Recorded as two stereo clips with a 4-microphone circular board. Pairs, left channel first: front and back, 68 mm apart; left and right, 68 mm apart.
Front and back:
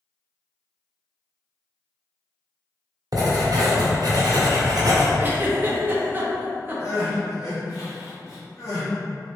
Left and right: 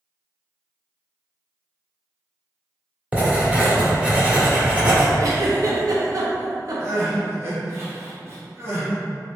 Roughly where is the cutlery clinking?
I don't hear cutlery clinking.